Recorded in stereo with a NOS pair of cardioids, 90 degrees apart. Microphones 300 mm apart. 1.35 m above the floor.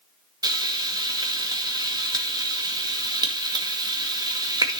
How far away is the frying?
About 1.9 m.